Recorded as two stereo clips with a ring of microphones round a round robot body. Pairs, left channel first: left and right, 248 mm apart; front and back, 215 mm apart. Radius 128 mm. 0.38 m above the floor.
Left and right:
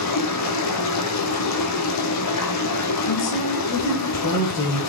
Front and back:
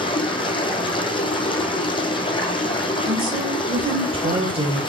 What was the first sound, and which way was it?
Running water, 70° left.